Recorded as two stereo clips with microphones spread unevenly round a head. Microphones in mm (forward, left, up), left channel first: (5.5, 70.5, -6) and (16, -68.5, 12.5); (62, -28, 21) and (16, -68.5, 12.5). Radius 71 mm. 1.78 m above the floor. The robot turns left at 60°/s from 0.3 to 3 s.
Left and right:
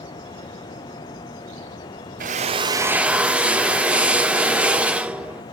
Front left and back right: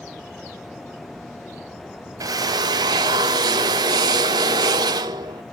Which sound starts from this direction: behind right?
A drill, at 2.2 s.